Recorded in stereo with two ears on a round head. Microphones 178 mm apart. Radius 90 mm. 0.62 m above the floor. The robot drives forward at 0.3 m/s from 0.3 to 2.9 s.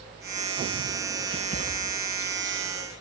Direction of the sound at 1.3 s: 45° left (ahead or behind).